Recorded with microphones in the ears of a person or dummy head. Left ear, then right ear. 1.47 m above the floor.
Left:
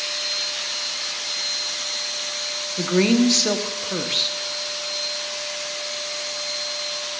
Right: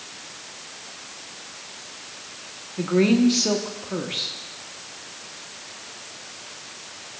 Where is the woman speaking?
20° left (ahead or behind), 1.0 m.